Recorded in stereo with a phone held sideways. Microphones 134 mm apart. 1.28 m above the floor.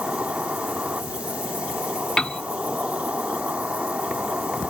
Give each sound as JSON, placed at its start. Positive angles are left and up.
{"t": 0.0, "sound": "an insect", "side_deg": -10}
{"t": 2.2, "sound": "a piano", "side_deg": 5}